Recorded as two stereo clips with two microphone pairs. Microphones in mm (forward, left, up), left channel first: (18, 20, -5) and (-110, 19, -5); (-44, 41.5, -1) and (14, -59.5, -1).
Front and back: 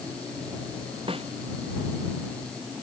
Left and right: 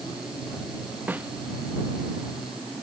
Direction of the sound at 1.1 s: 135° right.